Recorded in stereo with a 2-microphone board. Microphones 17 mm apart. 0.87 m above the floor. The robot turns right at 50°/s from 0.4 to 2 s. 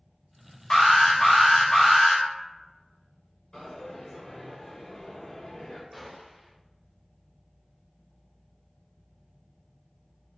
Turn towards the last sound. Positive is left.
turn(degrees=-5)  # may be behind; listen again after turning